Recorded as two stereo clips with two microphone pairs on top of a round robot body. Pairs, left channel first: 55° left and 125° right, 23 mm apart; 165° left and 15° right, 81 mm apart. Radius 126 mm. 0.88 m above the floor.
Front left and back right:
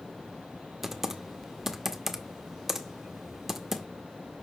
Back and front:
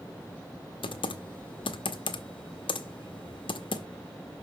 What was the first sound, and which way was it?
Typing on a keyboard, 155° left.